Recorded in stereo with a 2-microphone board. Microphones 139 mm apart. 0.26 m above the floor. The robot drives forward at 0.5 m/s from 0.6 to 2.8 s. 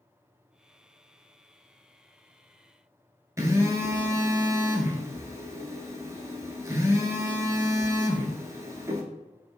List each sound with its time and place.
3.4 s a phone buzzing: 20° right (ahead or behind), 0.6 m